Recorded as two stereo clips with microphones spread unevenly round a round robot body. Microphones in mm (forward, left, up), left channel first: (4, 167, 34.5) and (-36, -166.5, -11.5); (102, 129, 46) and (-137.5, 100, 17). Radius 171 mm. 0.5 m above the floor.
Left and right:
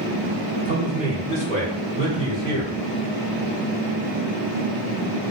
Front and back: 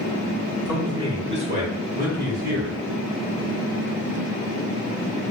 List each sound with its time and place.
0.7 s a man speaking: 105° right, 1.1 m; by 2.7 s 165° right, 1.7 m